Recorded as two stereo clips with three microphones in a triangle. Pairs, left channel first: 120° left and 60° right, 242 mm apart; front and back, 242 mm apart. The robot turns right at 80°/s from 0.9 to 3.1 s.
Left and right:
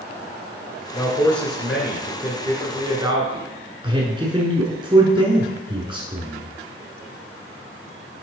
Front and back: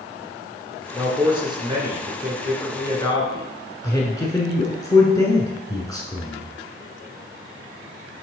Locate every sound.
0.9 s a man speaking: 160° left, 1.5 m; by 3.5 s 25° right, 1.5 m
3.8 s a man speaking: 40° right, 1.2 m